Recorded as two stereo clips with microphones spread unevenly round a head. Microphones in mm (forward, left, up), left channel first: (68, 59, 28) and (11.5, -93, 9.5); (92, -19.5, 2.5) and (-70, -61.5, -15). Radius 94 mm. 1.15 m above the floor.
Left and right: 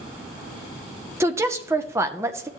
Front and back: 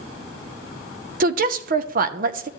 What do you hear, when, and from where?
1.2 s a woman speaking: 175° right, 0.7 m